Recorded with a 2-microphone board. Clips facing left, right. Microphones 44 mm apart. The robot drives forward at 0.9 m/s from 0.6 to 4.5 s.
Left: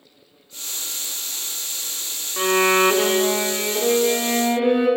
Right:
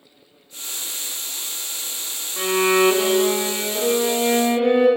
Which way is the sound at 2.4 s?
20° left (ahead or behind).